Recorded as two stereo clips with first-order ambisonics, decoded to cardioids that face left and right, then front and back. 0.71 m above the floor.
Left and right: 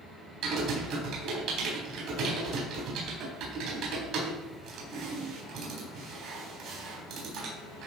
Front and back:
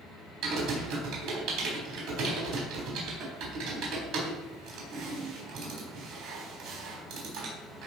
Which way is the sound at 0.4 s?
130° right.